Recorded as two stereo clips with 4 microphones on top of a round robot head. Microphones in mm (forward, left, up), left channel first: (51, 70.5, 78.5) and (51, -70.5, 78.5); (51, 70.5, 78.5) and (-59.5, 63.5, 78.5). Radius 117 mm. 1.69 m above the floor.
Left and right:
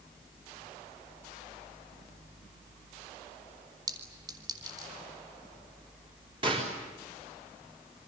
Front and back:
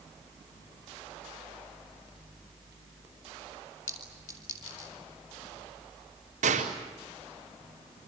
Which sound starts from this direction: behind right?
A gunshot, at 6.4 s.